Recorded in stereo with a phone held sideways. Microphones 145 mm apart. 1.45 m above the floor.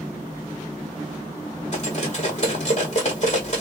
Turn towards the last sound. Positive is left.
turn(degrees=50)  # may be behind; listen again after turning